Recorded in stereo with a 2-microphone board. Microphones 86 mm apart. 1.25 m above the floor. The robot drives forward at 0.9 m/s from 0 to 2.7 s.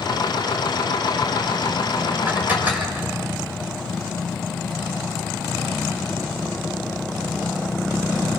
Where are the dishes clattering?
20° right (ahead or behind), 3.5 m.